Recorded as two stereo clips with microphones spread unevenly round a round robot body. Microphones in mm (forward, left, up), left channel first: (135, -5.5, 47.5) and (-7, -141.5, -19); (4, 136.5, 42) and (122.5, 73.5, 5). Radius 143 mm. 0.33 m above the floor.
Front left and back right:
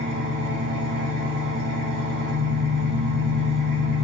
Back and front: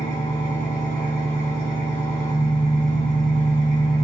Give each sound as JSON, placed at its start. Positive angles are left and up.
{"t": 0.0, "sound": "an engine running", "azimuth_deg": -155, "distance_m": 1.0}